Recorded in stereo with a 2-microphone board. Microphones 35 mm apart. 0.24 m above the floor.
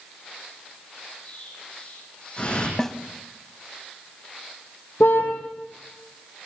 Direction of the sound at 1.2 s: 30° left (ahead or behind).